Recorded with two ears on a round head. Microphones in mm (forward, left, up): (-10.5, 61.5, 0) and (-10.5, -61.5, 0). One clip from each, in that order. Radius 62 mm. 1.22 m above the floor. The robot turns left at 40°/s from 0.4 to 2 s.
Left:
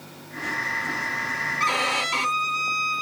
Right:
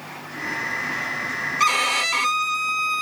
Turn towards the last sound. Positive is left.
turn(degrees=-50)  # may be behind; listen again after turning